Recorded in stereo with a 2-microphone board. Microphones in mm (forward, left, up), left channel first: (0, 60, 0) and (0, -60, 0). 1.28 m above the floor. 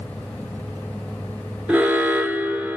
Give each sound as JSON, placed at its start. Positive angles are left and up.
{"t": 1.7, "sound": "an alarm", "side_deg": -15, "distance_m": 2.0}